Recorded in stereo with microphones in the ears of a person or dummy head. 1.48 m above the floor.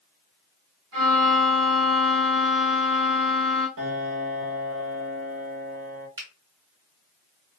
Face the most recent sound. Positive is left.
turn(degrees=-20)  # may be behind; listen again after turning